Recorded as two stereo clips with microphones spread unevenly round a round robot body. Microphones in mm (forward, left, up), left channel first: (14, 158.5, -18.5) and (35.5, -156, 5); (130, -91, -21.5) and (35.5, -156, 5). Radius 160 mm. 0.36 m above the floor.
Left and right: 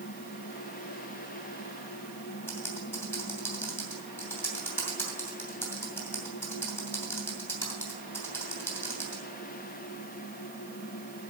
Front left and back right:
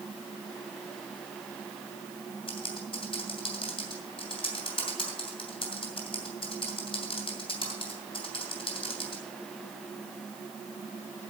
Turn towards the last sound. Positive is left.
turn(degrees=15)